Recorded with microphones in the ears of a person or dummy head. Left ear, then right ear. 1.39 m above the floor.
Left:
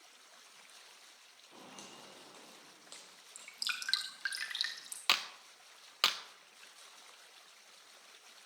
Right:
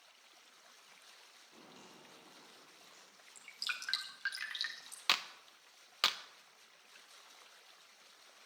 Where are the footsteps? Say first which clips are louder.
Left 7 dB; 60° left (ahead or behind), 2.5 m; by 3.2 s 55° left (ahead or behind), 3 m.